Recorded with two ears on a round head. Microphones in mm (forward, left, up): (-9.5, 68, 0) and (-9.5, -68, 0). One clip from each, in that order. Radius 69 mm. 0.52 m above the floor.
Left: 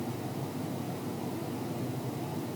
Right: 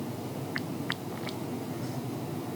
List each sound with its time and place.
Only background noise.